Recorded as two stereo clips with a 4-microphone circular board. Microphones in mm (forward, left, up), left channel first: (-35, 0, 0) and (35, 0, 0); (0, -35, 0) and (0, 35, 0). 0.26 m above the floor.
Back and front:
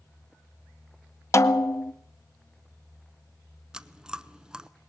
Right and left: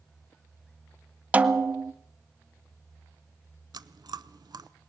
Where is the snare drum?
150° left, 0.6 m.